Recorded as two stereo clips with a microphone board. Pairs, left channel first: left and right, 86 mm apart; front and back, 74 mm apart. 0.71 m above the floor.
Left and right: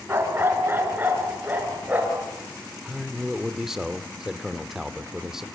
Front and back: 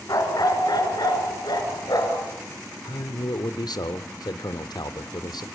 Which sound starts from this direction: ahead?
A man speaking, at 2.9 s.